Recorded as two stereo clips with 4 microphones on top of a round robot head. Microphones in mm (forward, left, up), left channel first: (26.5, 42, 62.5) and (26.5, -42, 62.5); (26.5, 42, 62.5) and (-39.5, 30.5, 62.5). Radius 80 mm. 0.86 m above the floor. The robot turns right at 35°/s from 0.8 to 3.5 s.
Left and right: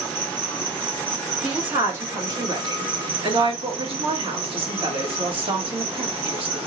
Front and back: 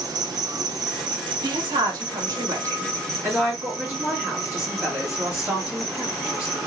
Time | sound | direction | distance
0.0 | an insect | 160° left | 0.9 m
1.4 | a woman speaking | 170° right | 2 m